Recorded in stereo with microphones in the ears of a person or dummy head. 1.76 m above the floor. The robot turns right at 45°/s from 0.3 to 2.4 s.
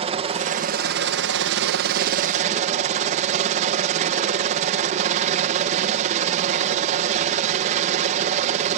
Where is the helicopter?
145° right; by 8.8 s 50° right.